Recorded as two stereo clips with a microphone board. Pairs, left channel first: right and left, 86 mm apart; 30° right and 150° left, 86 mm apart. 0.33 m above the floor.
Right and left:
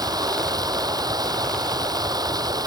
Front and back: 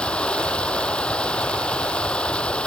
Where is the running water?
50° left.